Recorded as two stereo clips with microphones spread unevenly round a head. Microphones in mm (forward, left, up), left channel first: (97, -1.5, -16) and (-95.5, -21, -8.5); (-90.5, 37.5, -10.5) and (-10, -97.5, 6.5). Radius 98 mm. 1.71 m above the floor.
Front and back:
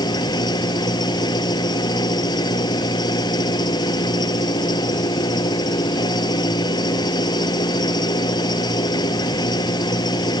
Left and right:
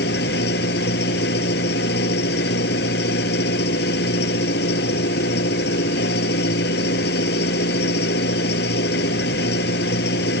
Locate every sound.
0.0 s an engine running: 75° left